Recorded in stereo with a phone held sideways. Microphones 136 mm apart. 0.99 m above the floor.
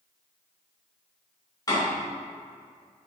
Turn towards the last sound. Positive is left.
turn(degrees=30)  # may be behind; listen again after turning